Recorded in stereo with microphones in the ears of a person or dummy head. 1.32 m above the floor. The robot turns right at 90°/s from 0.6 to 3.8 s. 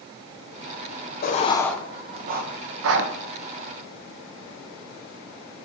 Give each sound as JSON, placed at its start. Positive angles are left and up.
{"t": 1.2, "sound": "writing", "side_deg": 45, "distance_m": 0.6}